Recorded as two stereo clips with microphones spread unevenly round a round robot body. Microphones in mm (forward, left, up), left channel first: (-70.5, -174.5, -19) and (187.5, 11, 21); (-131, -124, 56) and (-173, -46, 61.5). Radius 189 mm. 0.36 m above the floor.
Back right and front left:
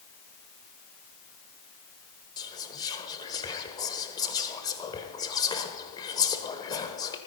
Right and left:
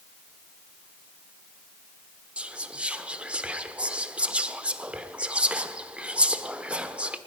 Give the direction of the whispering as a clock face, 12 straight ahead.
6 o'clock.